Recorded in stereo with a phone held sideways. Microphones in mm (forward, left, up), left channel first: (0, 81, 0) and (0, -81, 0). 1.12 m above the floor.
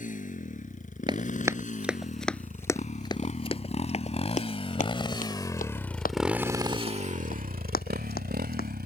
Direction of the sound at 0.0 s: 55° left (ahead or behind).